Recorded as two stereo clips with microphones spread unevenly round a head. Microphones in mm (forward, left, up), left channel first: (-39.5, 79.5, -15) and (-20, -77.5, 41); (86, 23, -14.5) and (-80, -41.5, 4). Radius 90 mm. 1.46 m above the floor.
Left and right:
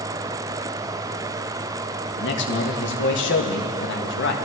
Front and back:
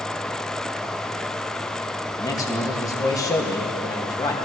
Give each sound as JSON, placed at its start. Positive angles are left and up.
{"t": 2.2, "sound": "a man speaking", "azimuth_deg": 95, "distance_m": 1.8}